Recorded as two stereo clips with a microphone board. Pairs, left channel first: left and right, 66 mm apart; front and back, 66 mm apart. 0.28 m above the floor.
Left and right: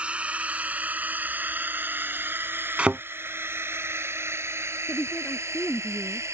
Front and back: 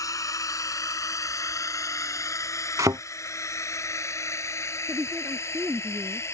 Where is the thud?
160° right.